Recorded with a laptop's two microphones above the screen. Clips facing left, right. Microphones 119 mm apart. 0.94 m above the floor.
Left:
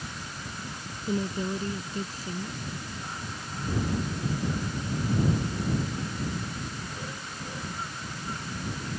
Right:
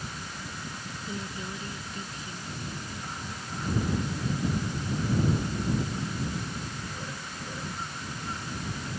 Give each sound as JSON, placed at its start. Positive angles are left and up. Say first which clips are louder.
{"t": 1.1, "sound": "a woman speaking", "louder": "left 9 dB", "side_deg": 35}